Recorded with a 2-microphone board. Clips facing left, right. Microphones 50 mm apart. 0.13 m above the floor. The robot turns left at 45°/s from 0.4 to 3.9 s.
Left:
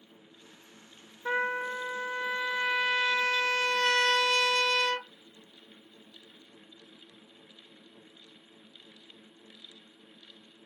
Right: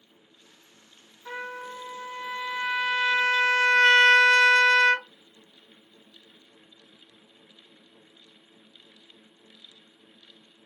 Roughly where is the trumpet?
Ahead left.